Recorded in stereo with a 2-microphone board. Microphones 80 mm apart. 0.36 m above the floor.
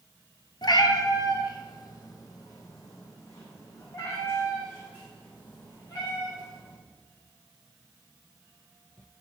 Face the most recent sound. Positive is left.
turn(degrees=35)  # may be behind; listen again after turning